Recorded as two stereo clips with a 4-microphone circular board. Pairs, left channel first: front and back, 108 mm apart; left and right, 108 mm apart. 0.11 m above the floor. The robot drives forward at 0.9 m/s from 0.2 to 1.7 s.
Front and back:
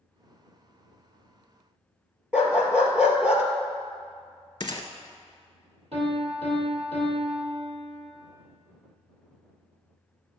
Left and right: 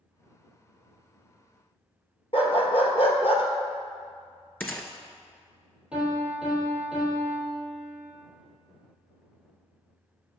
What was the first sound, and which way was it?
A dog barking, 100° left.